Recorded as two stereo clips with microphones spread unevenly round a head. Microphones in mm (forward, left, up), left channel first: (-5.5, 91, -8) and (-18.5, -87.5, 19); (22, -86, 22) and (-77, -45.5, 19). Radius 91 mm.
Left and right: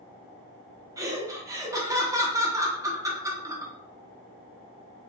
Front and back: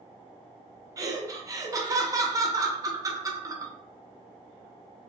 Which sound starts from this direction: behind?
Laughter, at 1.0 s.